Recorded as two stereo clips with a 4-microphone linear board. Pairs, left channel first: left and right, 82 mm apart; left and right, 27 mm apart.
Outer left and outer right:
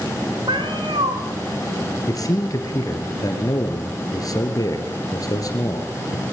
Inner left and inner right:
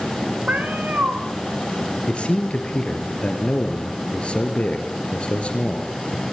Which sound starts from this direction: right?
A cat meowing, at 0.5 s.